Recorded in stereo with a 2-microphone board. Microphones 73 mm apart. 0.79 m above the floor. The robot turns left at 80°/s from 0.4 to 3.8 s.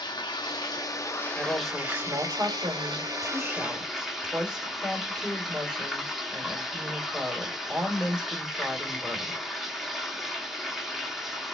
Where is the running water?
95° left, 0.9 m; by 11.6 s 175° right, 0.9 m.